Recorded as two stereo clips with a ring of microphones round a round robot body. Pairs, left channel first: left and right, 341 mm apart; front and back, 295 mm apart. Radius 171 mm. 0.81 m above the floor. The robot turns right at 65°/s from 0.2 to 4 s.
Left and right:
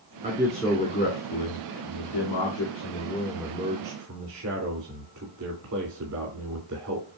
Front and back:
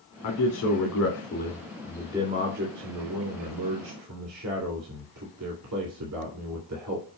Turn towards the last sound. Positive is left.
turn(degrees=-135)